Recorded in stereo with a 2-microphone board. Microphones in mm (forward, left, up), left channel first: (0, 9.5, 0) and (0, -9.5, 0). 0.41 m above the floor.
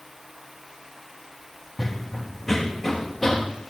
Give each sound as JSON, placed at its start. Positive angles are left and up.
{"t": 1.8, "sound": "running footsteps", "side_deg": 5, "distance_m": 0.9}